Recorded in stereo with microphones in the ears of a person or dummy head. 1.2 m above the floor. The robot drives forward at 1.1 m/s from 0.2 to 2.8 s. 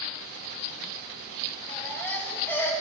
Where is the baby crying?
10° left (ahead or behind), 3 m; by 2.7 s 15° left (ahead or behind), 1.7 m.